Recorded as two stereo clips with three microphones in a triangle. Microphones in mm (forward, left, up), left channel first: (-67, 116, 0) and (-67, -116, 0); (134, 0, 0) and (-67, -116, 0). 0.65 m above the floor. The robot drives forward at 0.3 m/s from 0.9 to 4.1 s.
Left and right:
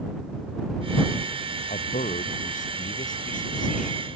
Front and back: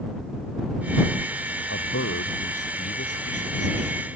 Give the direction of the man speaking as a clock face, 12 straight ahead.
11 o'clock.